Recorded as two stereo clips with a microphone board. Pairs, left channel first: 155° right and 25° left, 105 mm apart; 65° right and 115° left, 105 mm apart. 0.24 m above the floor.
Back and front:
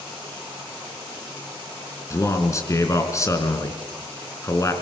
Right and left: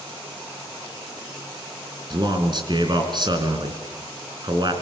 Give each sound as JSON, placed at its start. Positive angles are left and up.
{"t": 2.1, "sound": "a man speaking", "azimuth_deg": 145, "distance_m": 3.0}